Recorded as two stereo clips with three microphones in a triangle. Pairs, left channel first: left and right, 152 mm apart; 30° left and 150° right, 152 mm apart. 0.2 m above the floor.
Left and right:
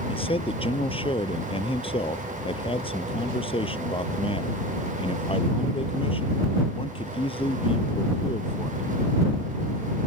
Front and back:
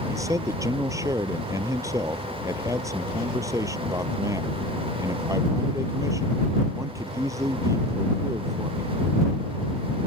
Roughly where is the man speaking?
Behind left.